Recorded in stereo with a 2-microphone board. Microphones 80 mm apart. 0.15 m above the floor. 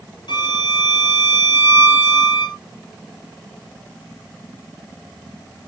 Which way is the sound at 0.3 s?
70° left (ahead or behind).